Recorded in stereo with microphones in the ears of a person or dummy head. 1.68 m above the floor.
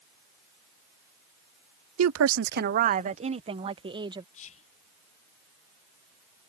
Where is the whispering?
35° left (ahead or behind).